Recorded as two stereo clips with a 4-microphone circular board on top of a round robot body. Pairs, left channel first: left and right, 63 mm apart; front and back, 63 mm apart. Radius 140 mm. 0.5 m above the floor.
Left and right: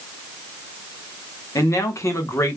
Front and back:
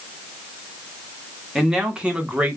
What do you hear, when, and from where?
1.6 s a man speaking: 100° left, 1.9 m; by 2.6 s 125° left, 1.7 m